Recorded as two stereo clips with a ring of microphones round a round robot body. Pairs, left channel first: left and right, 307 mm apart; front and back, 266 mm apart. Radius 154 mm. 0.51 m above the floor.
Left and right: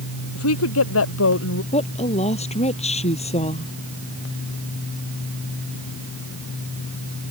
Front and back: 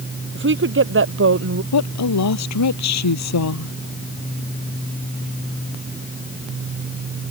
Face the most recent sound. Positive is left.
turn(degrees=20)